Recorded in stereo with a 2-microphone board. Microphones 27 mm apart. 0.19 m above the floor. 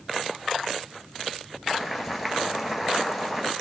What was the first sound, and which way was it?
Boiling, 10° right (ahead or behind).